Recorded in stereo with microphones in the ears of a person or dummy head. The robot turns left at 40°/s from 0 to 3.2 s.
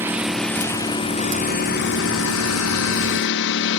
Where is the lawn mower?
165° right; by 3.8 s 65° left.